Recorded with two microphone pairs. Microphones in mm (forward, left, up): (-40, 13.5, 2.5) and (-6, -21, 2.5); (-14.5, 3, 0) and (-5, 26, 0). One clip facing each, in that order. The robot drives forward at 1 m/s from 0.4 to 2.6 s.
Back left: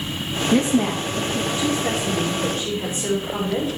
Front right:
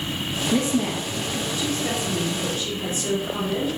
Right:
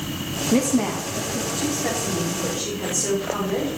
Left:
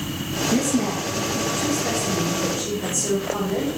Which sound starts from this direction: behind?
A woman speaking, at 0.5 s.